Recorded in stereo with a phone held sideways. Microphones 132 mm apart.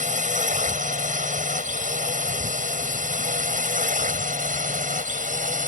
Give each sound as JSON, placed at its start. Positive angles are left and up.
{"t": 0.0, "sound": "a drone", "side_deg": -75}